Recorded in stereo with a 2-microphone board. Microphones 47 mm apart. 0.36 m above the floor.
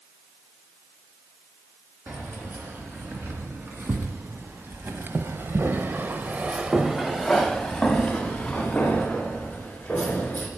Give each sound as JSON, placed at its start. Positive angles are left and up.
{"t": 2.1, "sound": "keys jangling", "side_deg": -50, "distance_m": 3.0}